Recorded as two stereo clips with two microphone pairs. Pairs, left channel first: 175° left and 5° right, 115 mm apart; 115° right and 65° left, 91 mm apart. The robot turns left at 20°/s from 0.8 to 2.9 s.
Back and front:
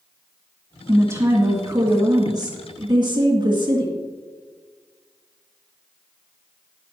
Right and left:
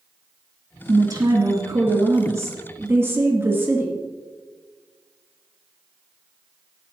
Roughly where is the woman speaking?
Ahead left.